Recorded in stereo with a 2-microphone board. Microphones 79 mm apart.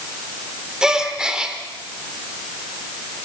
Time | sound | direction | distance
0.8 | a gasp | 10° right (ahead or behind) | 1.9 m